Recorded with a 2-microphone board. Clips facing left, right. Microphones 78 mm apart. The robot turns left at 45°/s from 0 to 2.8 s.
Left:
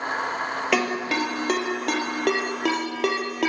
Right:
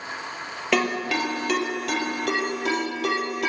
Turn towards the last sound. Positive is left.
turn(degrees=75)  # may be behind; listen again after turning